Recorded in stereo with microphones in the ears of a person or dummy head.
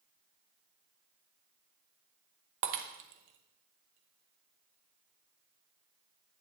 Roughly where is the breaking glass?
Right.